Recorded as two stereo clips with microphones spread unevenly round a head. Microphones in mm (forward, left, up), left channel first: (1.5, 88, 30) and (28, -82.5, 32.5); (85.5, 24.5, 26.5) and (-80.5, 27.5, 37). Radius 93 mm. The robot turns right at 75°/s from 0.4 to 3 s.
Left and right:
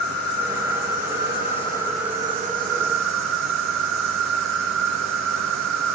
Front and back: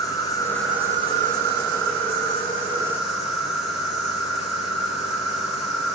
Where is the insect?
70° left, 1.0 m; by 6.0 s 95° right, 1.0 m.